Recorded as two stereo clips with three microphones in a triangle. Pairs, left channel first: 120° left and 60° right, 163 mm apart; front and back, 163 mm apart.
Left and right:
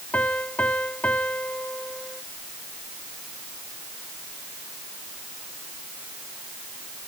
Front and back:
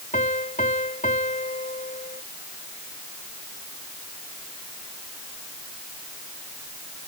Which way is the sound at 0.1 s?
40° left.